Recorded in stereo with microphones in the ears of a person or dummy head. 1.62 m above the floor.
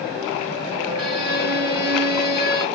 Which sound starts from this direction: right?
A violin, at 1.0 s.